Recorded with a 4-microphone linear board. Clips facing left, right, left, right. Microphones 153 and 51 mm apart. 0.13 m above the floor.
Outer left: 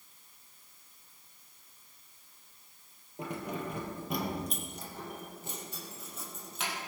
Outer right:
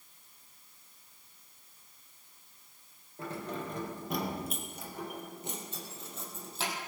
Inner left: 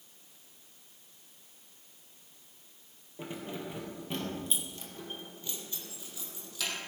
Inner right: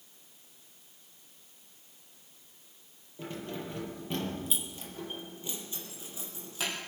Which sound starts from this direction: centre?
Keys jangling, at 3.2 s.